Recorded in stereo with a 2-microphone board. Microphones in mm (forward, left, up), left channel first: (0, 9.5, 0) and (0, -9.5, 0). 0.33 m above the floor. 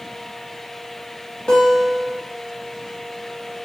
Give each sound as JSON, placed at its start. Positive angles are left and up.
{"t": 1.5, "sound": "a guitar", "side_deg": 50, "distance_m": 1.3}